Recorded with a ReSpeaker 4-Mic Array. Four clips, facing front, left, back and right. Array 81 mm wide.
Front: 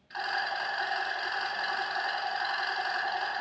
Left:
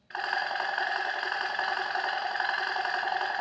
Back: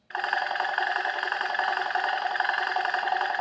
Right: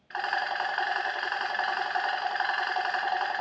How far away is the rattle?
About 1.0 m.